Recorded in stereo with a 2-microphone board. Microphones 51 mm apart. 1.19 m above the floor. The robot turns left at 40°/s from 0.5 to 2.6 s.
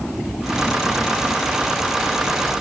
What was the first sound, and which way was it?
Only background noise.